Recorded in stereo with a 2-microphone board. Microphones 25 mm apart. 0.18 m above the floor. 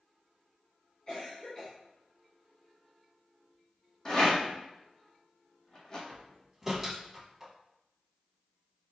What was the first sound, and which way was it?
A cough, 30° left (ahead or behind).